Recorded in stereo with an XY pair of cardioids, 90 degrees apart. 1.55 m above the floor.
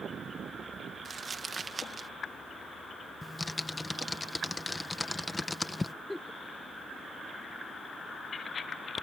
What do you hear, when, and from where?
1.1 s crumpling: 35° right
3.2 s typing on a keyboard: 20° left
6.1 s a giggle: 15° left